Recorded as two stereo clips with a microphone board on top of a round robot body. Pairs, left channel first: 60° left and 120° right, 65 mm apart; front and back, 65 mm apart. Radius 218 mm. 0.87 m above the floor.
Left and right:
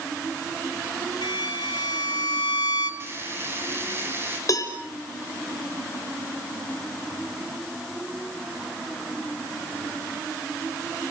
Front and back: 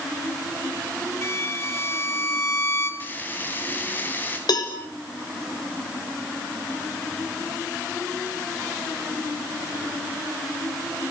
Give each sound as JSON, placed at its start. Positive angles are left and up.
{"t": 1.2, "sound": "a violin", "azimuth_deg": 55, "distance_m": 6.0}
{"t": 3.0, "sound": "frying", "azimuth_deg": -65, "distance_m": 5.0}
{"t": 4.5, "sound": "a cowbell", "azimuth_deg": 20, "distance_m": 4.0}